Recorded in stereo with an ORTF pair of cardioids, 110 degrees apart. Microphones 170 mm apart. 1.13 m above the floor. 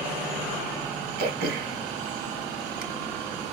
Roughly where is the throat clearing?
Ahead right.